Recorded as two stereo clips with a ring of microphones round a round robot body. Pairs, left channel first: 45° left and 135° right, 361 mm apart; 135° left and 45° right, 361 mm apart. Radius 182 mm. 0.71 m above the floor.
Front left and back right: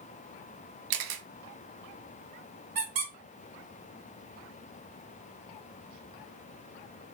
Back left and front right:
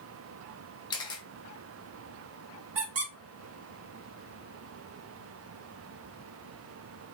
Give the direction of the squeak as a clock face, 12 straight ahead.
3 o'clock.